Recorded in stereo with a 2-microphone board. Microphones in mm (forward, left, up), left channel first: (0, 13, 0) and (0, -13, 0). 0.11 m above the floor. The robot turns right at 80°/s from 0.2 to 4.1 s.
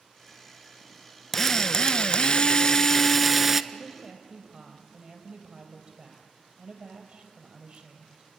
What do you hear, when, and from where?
1.3 s a drill: 20° left, 0.5 m; by 3.6 s 155° right, 0.5 m
3.7 s a woman speaking: 170° right, 3 m; by 8.3 s 140° right, 3 m